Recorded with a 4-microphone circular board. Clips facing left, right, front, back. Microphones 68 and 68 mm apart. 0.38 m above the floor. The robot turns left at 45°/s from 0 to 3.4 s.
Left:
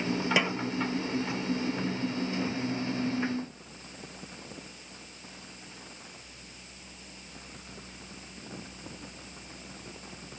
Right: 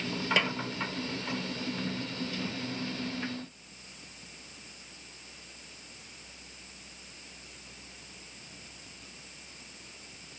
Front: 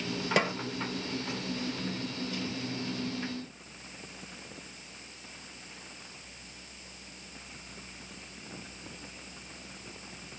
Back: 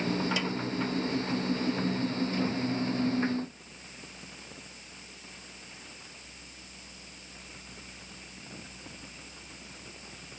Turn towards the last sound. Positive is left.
turn(degrees=-125)